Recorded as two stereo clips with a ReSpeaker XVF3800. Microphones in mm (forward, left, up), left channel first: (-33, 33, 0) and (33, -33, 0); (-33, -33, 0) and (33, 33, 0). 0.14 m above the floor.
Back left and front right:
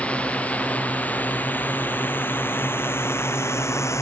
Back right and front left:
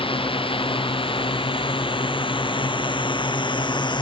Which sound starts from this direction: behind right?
A drone, at 0.0 s.